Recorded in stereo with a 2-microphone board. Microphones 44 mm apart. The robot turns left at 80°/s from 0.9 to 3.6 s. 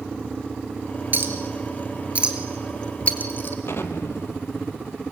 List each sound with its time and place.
1.1 s a clink: 45° right (ahead or behind), 1.9 m; by 3.5 s 55° left (ahead or behind), 1.9 m
3.6 s an explosion: 70° left (ahead or behind), 1.1 m